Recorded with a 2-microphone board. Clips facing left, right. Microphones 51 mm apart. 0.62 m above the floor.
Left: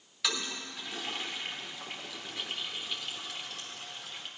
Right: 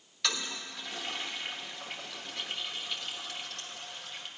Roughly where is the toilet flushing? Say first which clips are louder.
Even; centre.